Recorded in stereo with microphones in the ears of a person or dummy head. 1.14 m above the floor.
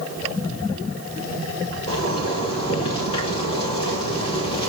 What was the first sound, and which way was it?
A zipper, 30° left (ahead or behind).